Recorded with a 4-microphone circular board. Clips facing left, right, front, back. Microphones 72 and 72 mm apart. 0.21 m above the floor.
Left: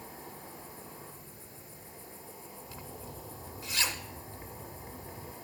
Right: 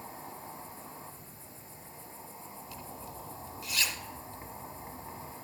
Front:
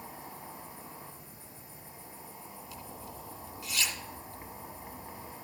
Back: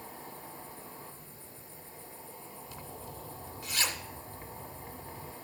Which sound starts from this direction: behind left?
A zipper, at 2.7 s.